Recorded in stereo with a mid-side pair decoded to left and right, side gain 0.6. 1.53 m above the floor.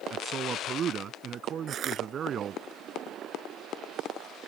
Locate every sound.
0.1 s a man speaking: 45° right
1.7 s crushing: 50° right